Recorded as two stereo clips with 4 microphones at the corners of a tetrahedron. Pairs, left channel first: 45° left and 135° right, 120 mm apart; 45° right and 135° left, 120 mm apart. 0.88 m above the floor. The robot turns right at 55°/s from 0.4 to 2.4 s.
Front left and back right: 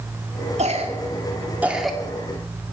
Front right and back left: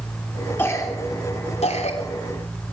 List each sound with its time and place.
0.6 s a cough: 115° right, 2.5 m; by 2.0 s 40° right, 2.5 m